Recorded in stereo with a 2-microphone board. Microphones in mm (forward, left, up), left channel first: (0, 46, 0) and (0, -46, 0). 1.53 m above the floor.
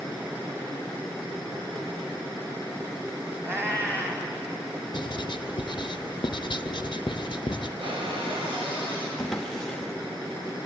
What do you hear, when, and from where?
3.4 s a cat meowing: 25° right (ahead or behind), 2.5 m
4.9 s writing: 55° left (ahead or behind), 0.5 m
7.8 s a cupboard door: 75° right (ahead or behind), 6.5 m
9.2 s a drawer: 5° left (ahead or behind), 1.1 m